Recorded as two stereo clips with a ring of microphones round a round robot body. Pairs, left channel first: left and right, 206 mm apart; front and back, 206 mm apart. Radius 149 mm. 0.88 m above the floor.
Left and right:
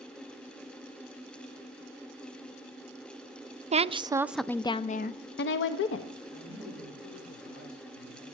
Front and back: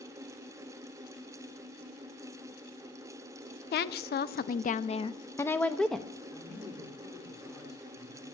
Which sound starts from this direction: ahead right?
A woman speaking, at 3.7 s.